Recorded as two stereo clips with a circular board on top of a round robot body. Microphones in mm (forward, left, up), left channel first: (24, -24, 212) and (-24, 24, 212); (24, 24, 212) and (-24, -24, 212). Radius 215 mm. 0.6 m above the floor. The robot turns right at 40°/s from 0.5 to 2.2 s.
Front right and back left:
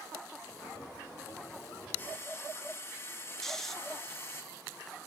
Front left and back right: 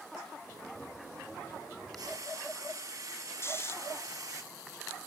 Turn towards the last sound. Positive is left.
turn(degrees=35)